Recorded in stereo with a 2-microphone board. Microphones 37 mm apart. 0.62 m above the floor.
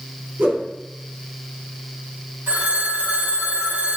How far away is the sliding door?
No sliding door in this recording.